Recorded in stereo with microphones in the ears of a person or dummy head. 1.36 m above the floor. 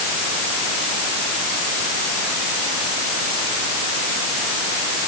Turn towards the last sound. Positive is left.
No sound to turn to.